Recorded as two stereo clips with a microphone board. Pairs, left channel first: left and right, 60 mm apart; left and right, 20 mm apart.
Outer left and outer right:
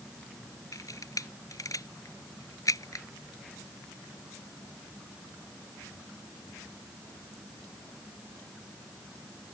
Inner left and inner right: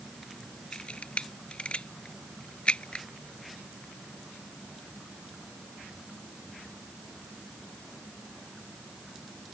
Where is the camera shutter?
70° left (ahead or behind).